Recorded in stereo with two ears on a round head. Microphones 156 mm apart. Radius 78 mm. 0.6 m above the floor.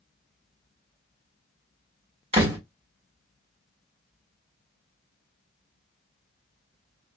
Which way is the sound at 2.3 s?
35° right (ahead or behind).